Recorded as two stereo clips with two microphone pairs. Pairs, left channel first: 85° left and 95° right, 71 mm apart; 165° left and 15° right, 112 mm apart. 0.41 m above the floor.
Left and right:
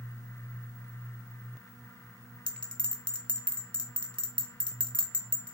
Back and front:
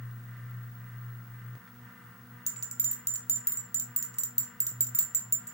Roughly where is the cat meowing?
No cat meowing in this recording.